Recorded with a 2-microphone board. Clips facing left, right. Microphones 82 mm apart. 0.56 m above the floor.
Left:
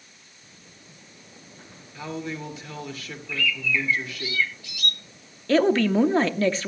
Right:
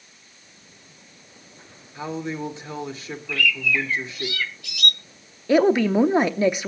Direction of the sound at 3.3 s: 70° right (ahead or behind).